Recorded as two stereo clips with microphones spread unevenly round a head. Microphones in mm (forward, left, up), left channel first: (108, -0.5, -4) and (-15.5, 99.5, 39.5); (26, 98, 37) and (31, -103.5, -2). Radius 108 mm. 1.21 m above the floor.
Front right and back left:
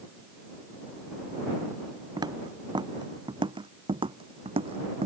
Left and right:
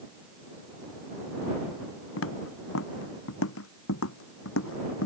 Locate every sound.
2.2 s footsteps: 80° left; by 5.1 s 100° left